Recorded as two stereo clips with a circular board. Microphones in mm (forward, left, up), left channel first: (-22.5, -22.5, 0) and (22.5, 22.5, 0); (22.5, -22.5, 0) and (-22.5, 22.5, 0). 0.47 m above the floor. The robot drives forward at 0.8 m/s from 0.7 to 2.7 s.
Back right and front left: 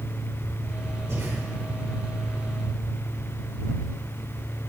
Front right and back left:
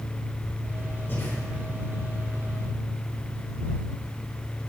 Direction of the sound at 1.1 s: 10° left.